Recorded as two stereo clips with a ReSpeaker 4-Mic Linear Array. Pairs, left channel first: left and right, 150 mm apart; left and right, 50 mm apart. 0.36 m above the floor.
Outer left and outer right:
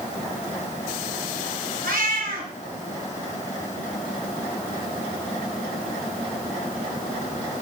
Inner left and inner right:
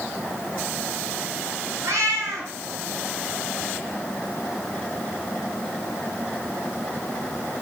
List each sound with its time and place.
1.8 s a cat meowing: 80° right, 3 m